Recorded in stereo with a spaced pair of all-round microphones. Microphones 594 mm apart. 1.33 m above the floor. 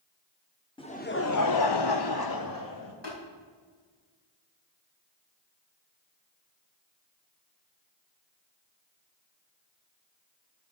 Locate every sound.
0.8 s laughter: 10° left (ahead or behind), 0.9 m; by 2.9 s 30° left (ahead or behind), 1.6 m
3.0 s tapping: 25° left (ahead or behind), 5 m